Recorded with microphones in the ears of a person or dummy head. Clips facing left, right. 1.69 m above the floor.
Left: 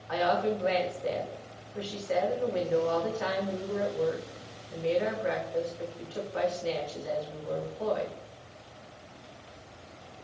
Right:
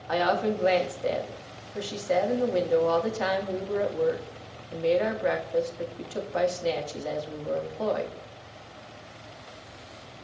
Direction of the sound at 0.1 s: 55° right (ahead or behind).